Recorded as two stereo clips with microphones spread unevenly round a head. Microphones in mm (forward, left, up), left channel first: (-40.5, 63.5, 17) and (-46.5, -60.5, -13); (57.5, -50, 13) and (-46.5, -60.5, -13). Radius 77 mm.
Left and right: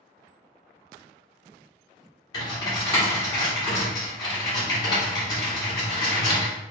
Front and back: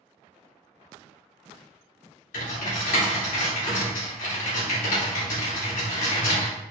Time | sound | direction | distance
2.3 | typing on a keyboard | 15° left | 1.8 m